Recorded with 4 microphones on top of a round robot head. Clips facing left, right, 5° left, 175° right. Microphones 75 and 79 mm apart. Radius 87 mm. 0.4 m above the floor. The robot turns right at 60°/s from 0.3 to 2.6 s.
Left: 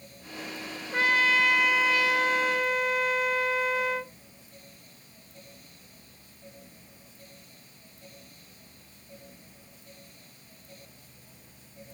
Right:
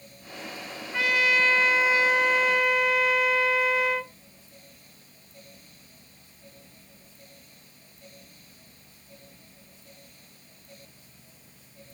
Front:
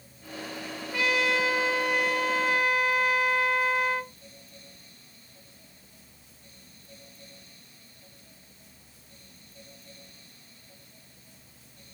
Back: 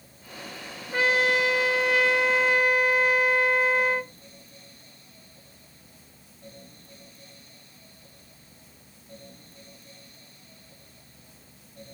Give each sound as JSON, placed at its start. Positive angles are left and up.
{"t": 0.9, "sound": "a trumpet", "azimuth_deg": 130, "distance_m": 1.0}